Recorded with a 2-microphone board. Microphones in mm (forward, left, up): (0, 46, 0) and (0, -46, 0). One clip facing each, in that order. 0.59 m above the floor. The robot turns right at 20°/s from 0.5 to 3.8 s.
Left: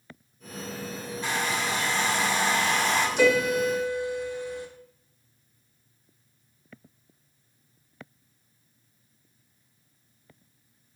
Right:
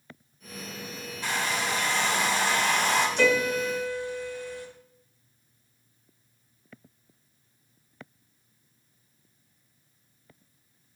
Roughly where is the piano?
Centre.